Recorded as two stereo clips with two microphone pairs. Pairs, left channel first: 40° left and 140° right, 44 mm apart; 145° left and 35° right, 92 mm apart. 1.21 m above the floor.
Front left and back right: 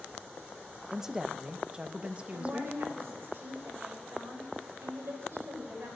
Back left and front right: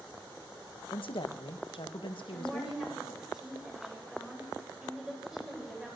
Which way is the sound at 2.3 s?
120° right.